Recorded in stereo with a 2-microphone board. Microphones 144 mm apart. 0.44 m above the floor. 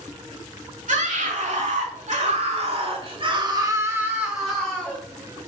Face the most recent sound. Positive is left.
turn(degrees=10)  # may be behind; listen again after turning